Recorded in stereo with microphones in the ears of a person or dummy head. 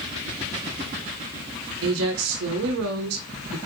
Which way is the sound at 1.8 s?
85° right.